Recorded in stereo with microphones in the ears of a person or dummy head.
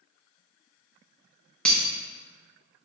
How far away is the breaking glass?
About 1.1 m.